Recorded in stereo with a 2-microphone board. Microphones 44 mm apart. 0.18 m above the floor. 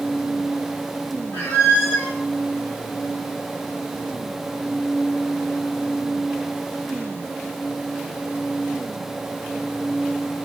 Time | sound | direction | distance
1.3 | a squeak | 75° left (ahead or behind) | 2.0 m